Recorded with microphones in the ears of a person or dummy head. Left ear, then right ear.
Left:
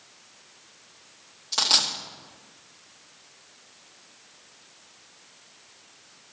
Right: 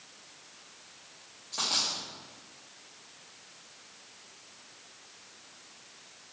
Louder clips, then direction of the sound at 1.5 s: Left 8 dB; 45° left (ahead or behind).